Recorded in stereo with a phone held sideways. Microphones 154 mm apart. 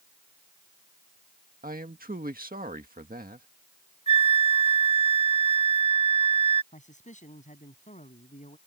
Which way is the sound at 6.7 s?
55° left (ahead or behind).